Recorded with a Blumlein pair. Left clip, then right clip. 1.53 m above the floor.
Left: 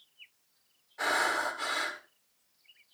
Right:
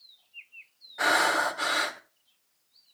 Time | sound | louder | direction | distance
1.0 | breathing | right 5 dB | 70° right | 1.9 m